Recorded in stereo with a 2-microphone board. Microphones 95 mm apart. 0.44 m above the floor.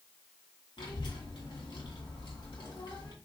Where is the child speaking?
60° left (ahead or behind), 2 m.